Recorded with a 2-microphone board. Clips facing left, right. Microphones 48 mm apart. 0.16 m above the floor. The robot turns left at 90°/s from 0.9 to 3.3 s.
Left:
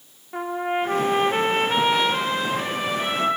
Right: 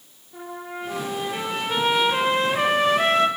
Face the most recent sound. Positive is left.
turn(degrees=-125)